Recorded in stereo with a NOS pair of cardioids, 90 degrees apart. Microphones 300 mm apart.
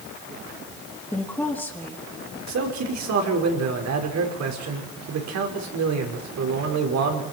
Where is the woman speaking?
5° left, 3.5 m.